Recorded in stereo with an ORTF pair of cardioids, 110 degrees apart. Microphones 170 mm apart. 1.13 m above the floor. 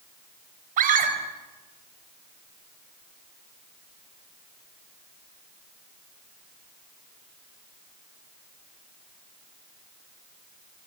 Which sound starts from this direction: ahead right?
A scream, at 0.8 s.